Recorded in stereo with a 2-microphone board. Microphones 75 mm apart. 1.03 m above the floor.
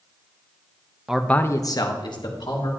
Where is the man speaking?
10° right (ahead or behind), 0.7 m; by 2.7 s 80° left, 2 m.